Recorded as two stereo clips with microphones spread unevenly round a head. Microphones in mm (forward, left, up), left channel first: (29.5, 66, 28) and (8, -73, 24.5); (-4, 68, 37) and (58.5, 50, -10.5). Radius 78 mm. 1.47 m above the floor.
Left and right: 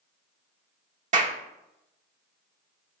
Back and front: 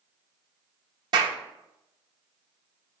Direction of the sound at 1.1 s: 60° right.